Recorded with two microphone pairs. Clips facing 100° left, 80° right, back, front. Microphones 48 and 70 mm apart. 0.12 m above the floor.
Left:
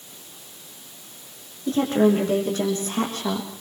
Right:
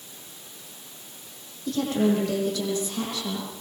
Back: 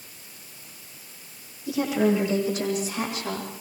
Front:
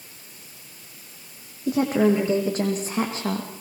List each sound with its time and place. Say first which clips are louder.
1.7 s a woman speaking: left 4 dB, front 3 dB; 40° left, 7 m; by 3.5 s 60° left, 7 m